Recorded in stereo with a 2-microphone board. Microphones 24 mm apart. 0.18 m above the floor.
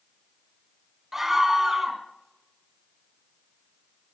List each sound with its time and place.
1.1 s a scream: 15° right (ahead or behind), 2.0 m